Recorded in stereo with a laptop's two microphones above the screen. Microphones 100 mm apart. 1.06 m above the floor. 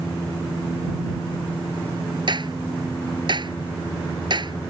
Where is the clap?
50° right (ahead or behind).